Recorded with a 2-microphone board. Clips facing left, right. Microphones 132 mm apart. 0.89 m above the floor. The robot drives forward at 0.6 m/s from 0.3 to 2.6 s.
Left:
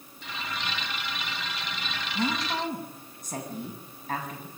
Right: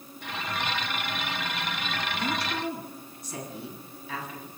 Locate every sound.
2.1 s a woman speaking: 45° left (ahead or behind), 7.5 m